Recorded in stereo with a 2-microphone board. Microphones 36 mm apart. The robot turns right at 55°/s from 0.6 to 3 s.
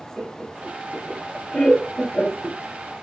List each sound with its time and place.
0.2 s laughter: 20° right (ahead or behind), 1.7 m; by 2.6 s 45° left (ahead or behind), 1.7 m